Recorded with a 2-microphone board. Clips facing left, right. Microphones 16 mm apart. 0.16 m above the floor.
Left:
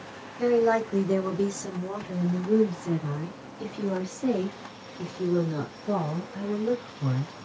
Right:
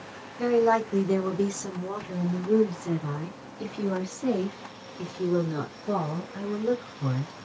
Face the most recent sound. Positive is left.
turn(degrees=-15)  # may be behind; listen again after turning